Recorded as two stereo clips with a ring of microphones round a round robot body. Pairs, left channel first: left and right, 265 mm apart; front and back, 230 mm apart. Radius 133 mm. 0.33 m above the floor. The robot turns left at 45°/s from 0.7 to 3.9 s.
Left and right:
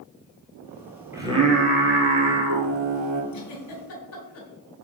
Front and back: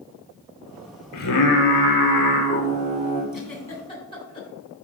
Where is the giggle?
95° left, 2.5 m; by 4.5 s 65° left, 2.5 m.